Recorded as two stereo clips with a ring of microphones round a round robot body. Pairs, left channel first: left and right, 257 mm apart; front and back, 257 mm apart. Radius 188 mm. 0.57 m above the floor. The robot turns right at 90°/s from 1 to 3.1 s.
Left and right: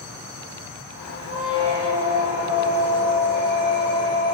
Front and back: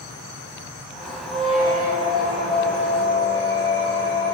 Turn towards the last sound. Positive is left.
turn(degrees=-125)